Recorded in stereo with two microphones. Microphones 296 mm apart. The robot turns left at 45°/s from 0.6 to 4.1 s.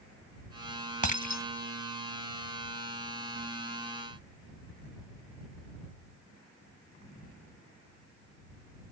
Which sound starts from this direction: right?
Breaking glass, at 1.0 s.